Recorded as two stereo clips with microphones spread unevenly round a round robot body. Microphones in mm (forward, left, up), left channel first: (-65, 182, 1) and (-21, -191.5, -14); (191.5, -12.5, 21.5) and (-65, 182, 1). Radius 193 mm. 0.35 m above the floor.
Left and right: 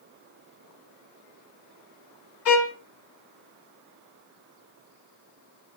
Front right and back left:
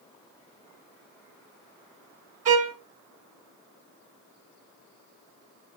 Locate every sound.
2.5 s a violin: 140° left, 1.4 m